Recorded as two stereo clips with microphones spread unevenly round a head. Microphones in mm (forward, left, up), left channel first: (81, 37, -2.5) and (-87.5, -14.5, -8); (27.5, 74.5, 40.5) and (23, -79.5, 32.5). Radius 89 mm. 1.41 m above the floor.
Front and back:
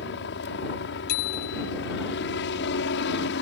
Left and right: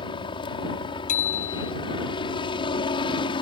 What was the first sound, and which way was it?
A helicopter, 30° left.